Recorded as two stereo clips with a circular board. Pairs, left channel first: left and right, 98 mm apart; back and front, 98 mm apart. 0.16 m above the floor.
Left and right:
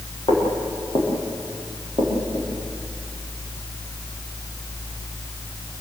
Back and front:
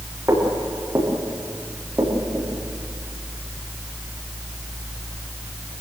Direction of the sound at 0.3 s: 65° left.